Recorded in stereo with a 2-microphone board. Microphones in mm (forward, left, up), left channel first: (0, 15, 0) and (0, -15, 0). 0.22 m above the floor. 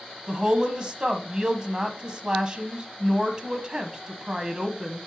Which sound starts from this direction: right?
A woman speaking, at 0.3 s.